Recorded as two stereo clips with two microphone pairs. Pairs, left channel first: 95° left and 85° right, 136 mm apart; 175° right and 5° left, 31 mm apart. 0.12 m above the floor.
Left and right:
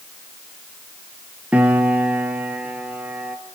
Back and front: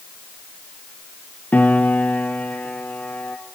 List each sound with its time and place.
1.5 s a piano: 165° right, 1.7 m